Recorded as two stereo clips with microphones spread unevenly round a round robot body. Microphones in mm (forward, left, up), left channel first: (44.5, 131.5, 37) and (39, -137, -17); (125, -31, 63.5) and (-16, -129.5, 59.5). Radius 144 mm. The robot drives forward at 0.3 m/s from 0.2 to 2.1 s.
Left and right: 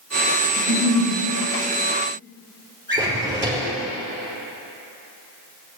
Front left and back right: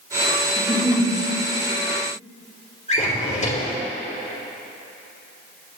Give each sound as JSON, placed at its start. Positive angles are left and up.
{"t": 0.6, "sound": "a giggle", "azimuth_deg": -80, "distance_m": 3.5}
{"t": 2.9, "sound": "a drawer", "azimuth_deg": -10, "distance_m": 3.5}